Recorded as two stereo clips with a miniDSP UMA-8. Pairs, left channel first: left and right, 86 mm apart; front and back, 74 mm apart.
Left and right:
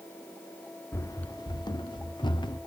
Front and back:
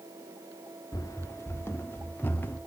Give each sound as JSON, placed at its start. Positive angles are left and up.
{"t": 0.9, "sound": "running footsteps", "azimuth_deg": 30, "distance_m": 0.5}